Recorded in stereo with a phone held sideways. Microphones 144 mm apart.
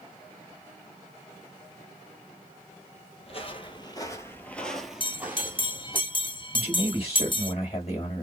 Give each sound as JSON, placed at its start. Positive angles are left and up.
{"t": 3.2, "sound": "footsteps", "side_deg": 45, "distance_m": 1.3}
{"t": 5.0, "sound": "a bell", "side_deg": 35, "distance_m": 0.7}
{"t": 6.5, "sound": "a man speaking", "side_deg": 40, "distance_m": 2.5}